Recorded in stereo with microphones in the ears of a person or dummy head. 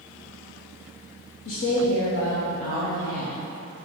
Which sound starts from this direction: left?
A woman speaking, at 1.4 s.